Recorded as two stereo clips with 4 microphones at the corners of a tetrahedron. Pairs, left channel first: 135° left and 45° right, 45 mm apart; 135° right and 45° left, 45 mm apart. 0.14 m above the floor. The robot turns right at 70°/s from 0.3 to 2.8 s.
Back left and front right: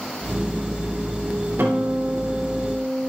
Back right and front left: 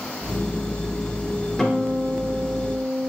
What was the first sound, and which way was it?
A guitar, 60° right.